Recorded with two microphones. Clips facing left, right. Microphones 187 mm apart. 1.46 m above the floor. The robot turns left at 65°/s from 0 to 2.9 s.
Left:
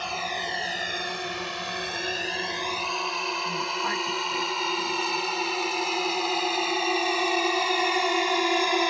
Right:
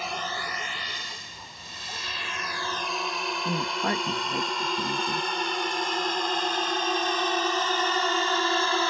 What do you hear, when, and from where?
0.0 s a drone: 5° right (ahead or behind); by 8.9 s 15° left (ahead or behind)
3.5 s a woman speaking: 50° right (ahead or behind)